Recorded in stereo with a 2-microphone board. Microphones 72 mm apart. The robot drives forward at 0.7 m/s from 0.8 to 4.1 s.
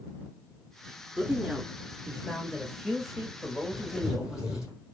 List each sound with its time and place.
1.2 s a woman speaking: 10° right (ahead or behind), 1.1 m; by 4.7 s 5° right (ahead or behind), 2.5 m
3.7 s writing: 5° right (ahead or behind), 2.5 m